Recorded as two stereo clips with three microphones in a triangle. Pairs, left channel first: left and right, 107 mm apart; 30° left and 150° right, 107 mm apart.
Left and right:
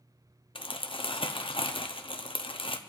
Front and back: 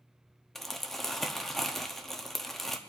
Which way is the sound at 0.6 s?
115° left.